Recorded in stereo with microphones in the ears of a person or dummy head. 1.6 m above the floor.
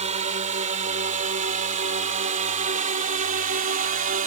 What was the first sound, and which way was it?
A drone, 40° right (ahead or behind).